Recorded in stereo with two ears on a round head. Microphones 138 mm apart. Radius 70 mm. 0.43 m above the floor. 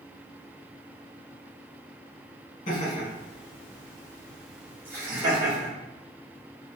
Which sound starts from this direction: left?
Laughter, at 2.7 s.